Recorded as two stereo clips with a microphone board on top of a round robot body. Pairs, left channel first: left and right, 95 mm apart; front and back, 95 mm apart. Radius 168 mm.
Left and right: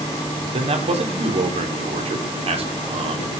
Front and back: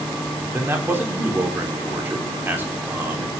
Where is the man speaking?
110° right, 3 m.